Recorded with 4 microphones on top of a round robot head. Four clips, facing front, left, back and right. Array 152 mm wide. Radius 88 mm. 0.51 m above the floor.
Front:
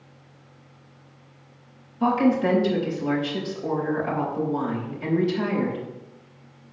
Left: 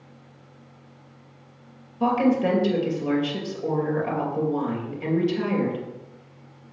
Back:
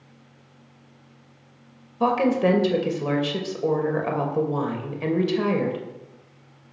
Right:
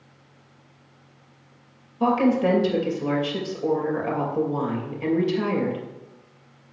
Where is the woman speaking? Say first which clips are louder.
Right 1 dB, even; straight behind, 2.5 m.